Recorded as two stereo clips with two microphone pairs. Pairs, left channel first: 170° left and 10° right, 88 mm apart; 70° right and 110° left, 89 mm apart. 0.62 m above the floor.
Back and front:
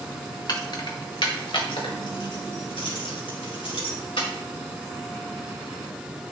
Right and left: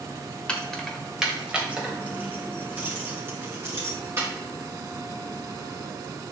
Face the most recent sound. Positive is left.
turn(degrees=165)